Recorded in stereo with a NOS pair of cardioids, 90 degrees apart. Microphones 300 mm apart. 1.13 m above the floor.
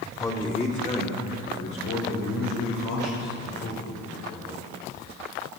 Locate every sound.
0.2 s a man speaking: 10° left, 3 m; by 4.5 s 75° left, 6.5 m